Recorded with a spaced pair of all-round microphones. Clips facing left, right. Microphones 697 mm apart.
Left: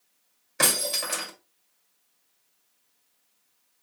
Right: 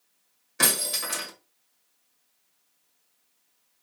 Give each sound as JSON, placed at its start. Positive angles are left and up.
{"t": 0.6, "sound": "breaking glass", "side_deg": 10, "distance_m": 1.9}